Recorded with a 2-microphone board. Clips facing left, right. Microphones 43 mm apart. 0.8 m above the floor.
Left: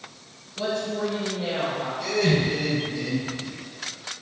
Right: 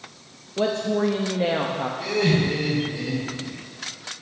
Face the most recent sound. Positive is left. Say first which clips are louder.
# even
turn(degrees=-25)  # may be behind; listen again after turning